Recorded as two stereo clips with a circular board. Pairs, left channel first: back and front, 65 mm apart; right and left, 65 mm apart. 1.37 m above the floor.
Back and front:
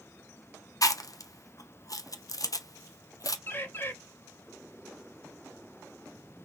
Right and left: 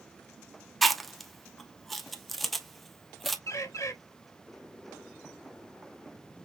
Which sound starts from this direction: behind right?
A bird, at 3.5 s.